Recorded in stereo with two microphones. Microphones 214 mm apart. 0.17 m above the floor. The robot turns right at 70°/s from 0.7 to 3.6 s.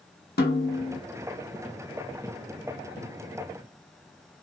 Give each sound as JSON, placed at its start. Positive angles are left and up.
{"t": 0.4, "sound": "a snare drum", "side_deg": 50, "distance_m": 0.8}